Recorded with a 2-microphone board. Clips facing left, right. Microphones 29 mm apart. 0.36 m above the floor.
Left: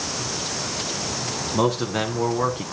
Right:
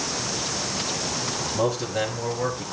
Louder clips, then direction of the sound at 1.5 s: Left 3 dB; 65° left (ahead or behind).